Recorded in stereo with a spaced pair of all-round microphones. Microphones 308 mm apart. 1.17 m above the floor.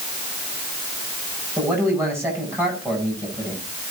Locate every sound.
1.6 s a man speaking: 10° right (ahead or behind), 7 m